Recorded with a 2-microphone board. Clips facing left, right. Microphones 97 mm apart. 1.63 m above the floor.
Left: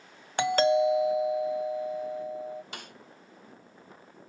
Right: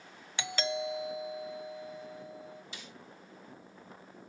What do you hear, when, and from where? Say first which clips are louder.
0.4 s a doorbell: left 12 dB; 50° left (ahead or behind)
2.7 s a snare drum: left 5 dB; 60° left (ahead or behind)